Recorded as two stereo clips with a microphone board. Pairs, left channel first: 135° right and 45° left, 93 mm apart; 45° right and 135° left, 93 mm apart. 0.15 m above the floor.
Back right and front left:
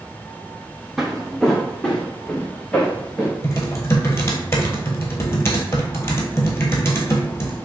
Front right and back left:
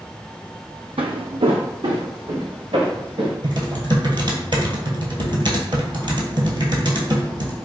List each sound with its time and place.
1.0 s footsteps: 130° left, 0.5 m; by 3.3 s 145° left, 1.7 m
3.4 s typing on a keyboard: 165° left, 0.9 m